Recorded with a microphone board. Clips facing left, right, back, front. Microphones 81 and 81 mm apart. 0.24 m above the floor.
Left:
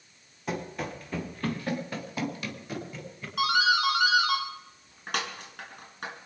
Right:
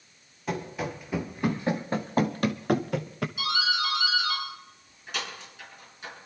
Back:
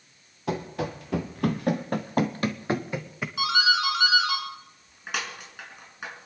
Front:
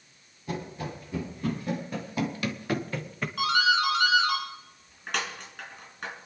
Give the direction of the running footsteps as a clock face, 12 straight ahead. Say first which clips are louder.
Right 2 dB, back 5 dB; 6 o'clock.